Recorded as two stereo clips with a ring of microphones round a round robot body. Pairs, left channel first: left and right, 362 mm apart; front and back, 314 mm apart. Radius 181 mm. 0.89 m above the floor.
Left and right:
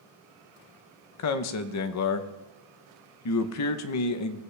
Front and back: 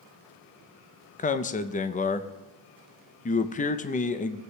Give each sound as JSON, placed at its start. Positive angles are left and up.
{"t": 1.2, "sound": "a man speaking", "azimuth_deg": 60, "distance_m": 0.6}